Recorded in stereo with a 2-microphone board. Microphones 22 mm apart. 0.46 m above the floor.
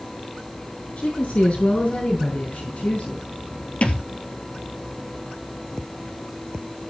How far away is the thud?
About 2.5 m.